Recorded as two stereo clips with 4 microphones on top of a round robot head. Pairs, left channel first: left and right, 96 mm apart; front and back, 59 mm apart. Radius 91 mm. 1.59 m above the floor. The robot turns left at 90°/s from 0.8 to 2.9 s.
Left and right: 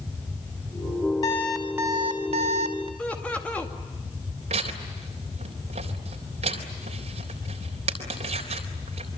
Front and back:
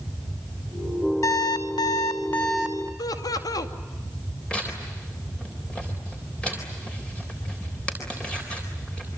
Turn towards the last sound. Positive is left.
turn(degrees=-80)